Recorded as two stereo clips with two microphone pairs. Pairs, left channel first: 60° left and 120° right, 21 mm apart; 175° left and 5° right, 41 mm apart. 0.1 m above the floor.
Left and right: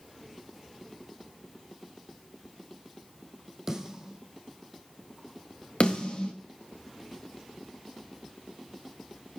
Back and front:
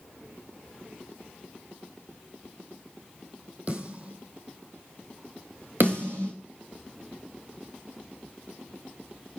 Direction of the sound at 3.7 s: 60° right.